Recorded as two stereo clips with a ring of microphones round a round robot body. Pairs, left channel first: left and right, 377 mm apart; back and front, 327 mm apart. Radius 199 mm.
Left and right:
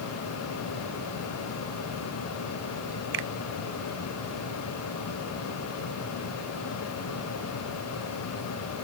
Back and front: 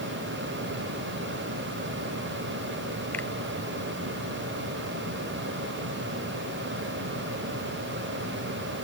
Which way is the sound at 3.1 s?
95° right.